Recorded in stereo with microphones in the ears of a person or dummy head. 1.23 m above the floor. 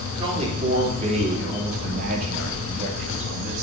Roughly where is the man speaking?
Right.